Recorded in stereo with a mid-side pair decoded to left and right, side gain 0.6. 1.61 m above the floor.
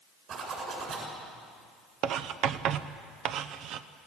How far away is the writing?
About 0.9 m.